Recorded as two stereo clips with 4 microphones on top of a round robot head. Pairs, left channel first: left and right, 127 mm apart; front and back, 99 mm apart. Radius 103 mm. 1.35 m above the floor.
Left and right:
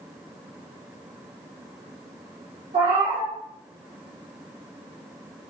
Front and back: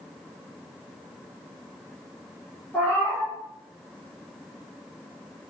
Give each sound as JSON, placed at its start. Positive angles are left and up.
{"t": 2.7, "sound": "a cat meowing", "azimuth_deg": -80, "distance_m": 0.9}